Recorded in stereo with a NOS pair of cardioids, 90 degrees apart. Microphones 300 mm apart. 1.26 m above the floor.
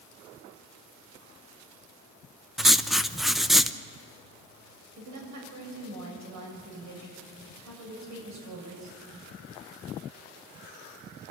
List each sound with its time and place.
2.6 s writing: straight ahead, 0.9 m
5.0 s a woman speaking: 65° right, 8 m